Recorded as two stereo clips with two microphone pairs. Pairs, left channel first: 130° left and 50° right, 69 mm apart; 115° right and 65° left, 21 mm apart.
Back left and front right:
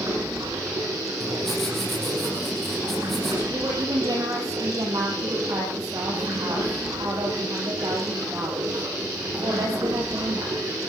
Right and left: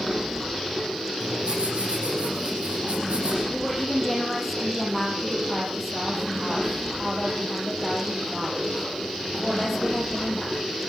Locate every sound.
0.0 s running water: 20° right, 6.5 m
1.2 s writing: 45° left, 6.5 m
3.5 s a woman speaking: 25° right, 6.5 m